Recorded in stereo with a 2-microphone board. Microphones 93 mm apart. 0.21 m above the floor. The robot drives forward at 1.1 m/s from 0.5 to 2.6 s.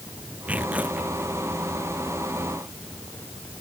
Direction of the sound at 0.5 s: 15° right (ahead or behind).